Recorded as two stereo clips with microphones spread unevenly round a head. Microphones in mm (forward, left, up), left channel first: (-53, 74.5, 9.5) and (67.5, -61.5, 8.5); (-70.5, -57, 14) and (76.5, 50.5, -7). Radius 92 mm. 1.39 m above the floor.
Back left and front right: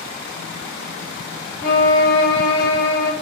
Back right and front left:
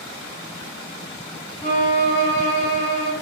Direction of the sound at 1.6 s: 145° left.